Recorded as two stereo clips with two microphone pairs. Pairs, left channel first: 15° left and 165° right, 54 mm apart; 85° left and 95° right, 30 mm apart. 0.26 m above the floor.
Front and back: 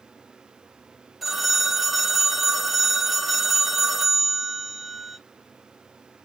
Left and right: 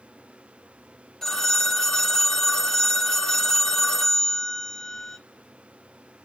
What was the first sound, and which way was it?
A phone ringing, 110° left.